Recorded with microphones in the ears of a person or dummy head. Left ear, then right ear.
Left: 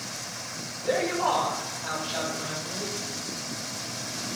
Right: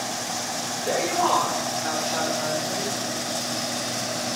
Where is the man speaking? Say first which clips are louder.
Right 2 dB; 65° right (ahead or behind), 6 m; by 3.0 s 55° right (ahead or behind), 6.5 m.